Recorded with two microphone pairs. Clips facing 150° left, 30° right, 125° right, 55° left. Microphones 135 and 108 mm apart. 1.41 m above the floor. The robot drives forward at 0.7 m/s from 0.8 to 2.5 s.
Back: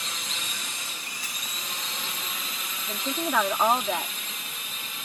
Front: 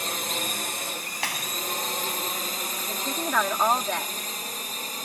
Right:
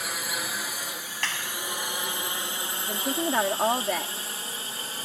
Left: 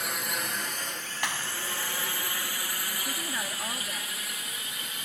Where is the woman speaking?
130° right.